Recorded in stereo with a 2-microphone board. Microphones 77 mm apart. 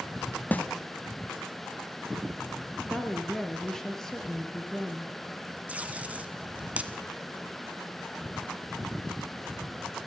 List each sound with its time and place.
0.5 s a snare drum: 20° left (ahead or behind), 1.4 m
2.9 s a woman speaking: 5° left (ahead or behind), 3 m
5.7 s tape being pulled: 20° right (ahead or behind), 1.4 m